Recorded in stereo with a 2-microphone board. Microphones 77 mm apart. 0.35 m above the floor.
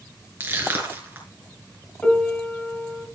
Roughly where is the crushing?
Right.